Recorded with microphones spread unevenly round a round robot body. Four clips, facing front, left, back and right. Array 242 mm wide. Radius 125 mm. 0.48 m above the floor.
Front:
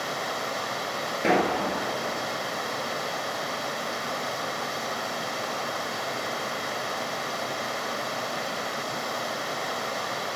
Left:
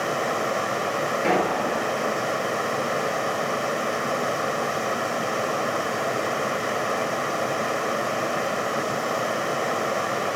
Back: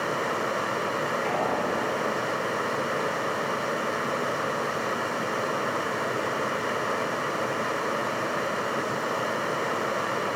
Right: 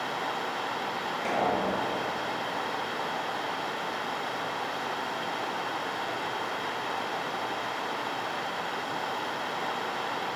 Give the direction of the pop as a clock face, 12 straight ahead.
11 o'clock.